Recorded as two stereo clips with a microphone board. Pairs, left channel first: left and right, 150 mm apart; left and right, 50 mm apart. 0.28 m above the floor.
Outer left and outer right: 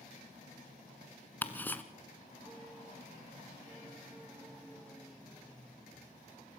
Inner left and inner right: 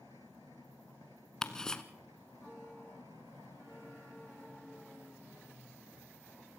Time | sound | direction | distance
1.4 | ticking | 10° left (ahead or behind) | 1.3 m